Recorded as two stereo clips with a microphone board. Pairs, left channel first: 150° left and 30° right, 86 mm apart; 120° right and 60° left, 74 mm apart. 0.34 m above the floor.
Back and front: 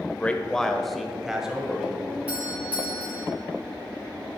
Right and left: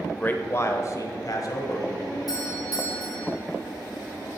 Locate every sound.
0.1 s a man speaking: 165° right, 0.9 m; by 2.0 s 105° right, 1.7 m
2.3 s a doorbell: 100° right, 3.5 m